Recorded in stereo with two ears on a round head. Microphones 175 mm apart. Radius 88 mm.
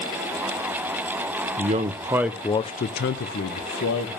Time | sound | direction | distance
1.6 | a man speaking | 35° right (ahead or behind) | 0.9 m